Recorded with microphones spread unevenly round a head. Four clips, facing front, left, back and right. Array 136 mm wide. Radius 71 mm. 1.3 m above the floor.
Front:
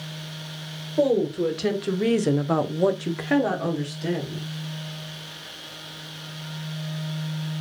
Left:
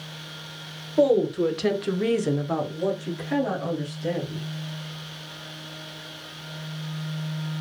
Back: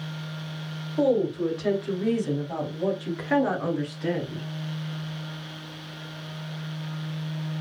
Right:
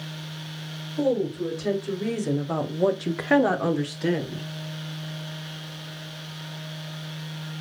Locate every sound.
1.0 s a woman speaking: 50° left, 1.7 m; by 4.5 s 90° right, 1.7 m